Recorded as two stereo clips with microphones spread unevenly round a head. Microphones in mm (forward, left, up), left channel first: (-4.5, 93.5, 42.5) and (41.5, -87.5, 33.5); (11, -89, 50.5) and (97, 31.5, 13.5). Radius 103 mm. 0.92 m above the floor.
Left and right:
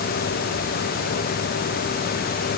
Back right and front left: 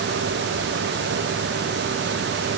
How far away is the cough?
No cough in this recording.